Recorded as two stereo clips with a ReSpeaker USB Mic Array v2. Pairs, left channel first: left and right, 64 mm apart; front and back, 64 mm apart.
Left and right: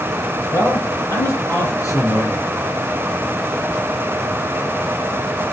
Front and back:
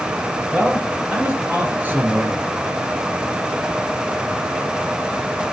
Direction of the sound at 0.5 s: 100° left.